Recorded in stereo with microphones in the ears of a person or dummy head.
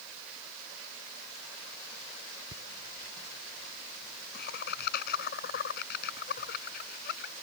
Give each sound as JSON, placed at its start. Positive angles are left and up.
{"t": 2.5, "sound": "laughter", "side_deg": 55}